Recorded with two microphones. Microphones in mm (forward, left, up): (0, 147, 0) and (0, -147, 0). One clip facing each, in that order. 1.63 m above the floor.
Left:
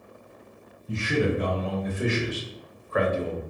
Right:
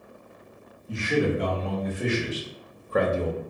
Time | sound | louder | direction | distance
0.9 | a man speaking | right 1 dB | 30° left (ahead or behind) | 1.2 m